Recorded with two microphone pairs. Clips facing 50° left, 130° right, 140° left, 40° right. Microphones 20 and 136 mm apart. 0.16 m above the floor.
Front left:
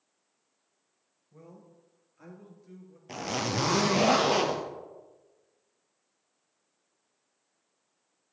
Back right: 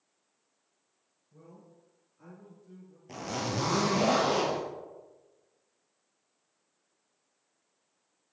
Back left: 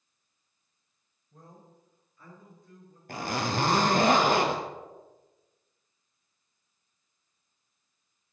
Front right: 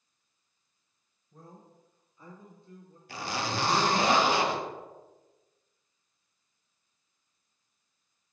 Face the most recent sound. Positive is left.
turn(degrees=105)